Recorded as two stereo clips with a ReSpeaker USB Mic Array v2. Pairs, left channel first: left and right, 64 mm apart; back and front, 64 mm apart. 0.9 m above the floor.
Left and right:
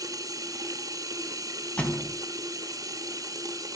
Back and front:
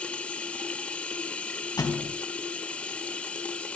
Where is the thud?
160° left, 2.5 m.